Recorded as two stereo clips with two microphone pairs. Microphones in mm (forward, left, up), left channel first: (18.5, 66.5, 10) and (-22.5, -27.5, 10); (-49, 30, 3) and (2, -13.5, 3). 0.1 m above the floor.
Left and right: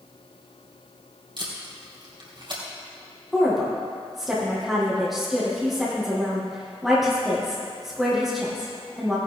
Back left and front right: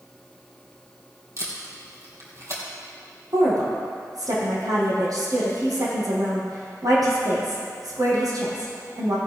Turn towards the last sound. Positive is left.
turn(degrees=-25)